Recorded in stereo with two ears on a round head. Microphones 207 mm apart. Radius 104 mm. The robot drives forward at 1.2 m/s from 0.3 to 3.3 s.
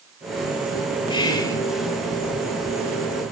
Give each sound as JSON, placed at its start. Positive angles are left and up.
{"t": 1.1, "sound": "whispering", "side_deg": 20, "distance_m": 1.8}